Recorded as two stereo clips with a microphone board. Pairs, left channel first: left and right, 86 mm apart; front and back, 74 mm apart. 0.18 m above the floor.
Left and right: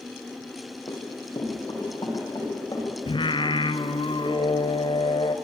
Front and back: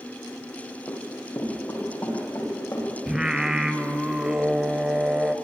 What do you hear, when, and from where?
0.9 s running footsteps: 55° left, 9 m; by 2.9 s 35° left, 10 m
3.1 s singing: 95° left, 0.9 m